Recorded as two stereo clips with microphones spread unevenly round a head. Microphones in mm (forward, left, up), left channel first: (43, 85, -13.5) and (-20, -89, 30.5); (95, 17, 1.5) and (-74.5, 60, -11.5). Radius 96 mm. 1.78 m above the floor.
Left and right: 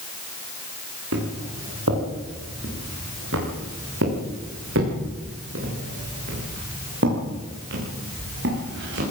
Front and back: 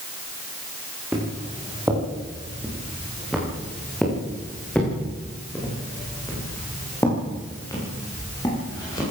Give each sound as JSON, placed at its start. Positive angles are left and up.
{"t": 1.1, "sound": "footsteps", "azimuth_deg": -115, "distance_m": 9.0}